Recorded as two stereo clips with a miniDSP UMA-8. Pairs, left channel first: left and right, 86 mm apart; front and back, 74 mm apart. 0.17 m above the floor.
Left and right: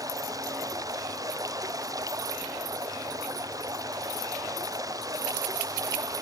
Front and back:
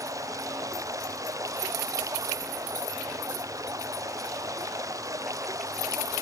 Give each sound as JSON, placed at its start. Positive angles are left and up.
{"t": 0.0, "sound": "running water", "azimuth_deg": -140}